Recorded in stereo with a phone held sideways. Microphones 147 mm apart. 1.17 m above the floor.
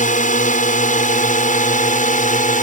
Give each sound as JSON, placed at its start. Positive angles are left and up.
{"t": 0.0, "sound": "a drone", "side_deg": 60}